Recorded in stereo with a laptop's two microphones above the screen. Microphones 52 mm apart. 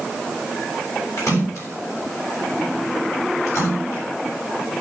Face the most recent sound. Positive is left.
turn(degrees=70)  # may be behind; listen again after turning